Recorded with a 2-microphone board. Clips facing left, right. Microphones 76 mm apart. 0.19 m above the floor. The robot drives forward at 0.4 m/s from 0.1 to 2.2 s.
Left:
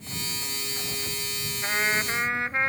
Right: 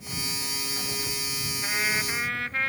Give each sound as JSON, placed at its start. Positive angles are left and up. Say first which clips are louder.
{"t": 1.6, "sound": "a trumpet", "louder": "left 3 dB", "side_deg": 25}